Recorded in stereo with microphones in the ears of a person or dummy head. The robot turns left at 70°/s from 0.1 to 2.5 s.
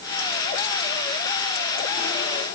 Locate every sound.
Only background noise.